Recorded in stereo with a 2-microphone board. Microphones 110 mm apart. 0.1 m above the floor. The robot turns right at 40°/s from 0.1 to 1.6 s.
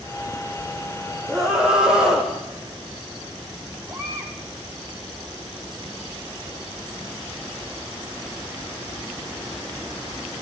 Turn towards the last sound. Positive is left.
turn(degrees=-25)  # may be behind; listen again after turning